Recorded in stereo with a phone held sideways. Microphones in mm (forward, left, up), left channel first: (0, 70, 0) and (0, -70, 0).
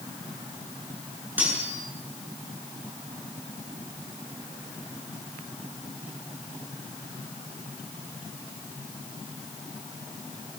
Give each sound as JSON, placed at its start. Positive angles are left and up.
{"t": 1.4, "sound": "cutlery clinking", "side_deg": -10, "distance_m": 9.0}